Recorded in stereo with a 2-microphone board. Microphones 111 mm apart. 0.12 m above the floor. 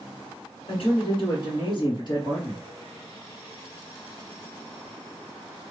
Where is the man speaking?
50° left (ahead or behind), 2.5 m; by 2.6 s 40° left (ahead or behind), 3 m.